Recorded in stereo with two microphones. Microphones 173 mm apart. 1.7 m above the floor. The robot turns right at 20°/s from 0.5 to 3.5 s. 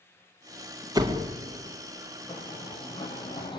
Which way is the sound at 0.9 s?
20° right (ahead or behind).